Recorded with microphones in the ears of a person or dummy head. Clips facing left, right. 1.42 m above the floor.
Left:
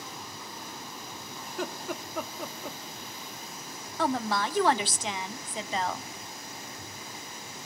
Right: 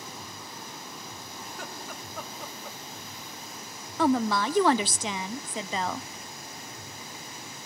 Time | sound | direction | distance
1.4 | laughter | 60° left (ahead or behind) | 0.9 m
4.0 | a woman speaking | 70° right (ahead or behind) | 0.6 m